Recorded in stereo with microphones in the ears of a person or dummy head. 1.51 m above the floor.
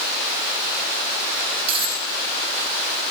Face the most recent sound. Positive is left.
turn(degrees=-35)  # may be behind; listen again after turning